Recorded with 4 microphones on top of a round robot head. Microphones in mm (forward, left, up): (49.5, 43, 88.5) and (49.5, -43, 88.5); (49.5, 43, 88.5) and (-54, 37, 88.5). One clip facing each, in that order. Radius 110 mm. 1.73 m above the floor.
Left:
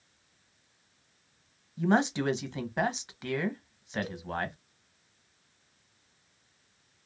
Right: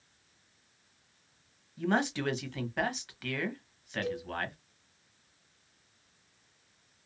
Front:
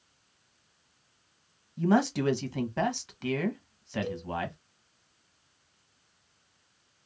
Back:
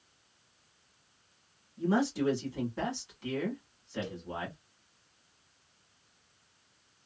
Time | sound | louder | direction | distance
1.8 | a man speaking | left 4 dB, front 4 dB | 20° left | 1.0 m
4.0 | a cowbell | right 5 dB, front 6 dB | 55° right | 1.9 m